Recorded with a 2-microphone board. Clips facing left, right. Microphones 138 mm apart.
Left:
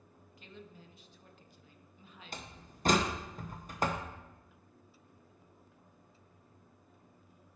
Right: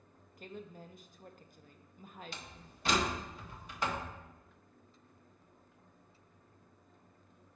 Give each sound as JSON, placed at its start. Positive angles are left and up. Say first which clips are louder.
{"t": 0.4, "sound": "a woman speaking", "louder": "right 5 dB", "side_deg": -45, "distance_m": 0.6}
{"t": 2.3, "sound": "a door slam", "louder": "left 3 dB", "side_deg": 45, "distance_m": 0.7}